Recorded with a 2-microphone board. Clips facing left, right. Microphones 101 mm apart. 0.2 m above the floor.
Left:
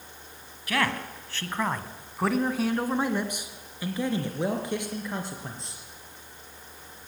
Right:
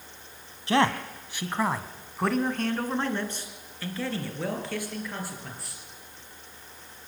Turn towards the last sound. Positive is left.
turn(degrees=20)  # may be behind; listen again after turning